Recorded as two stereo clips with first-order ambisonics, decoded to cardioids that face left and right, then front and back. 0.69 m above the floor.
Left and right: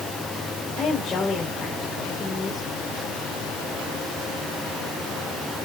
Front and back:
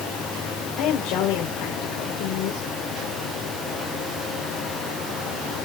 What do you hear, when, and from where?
0.8 s a woman speaking: 20° left, 2.5 m